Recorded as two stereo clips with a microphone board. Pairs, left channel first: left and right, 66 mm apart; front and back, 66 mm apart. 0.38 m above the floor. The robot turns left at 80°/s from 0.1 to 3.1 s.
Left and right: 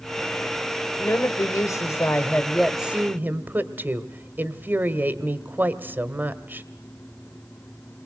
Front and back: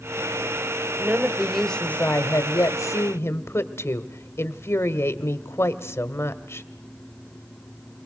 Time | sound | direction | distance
1.0 | a woman speaking | 130° left | 1.3 m